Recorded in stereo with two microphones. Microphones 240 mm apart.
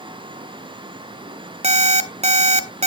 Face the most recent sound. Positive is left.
turn(degrees=-30)  # may be behind; listen again after turning